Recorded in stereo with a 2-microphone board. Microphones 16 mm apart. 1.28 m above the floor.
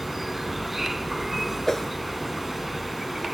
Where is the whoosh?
30° left (ahead or behind).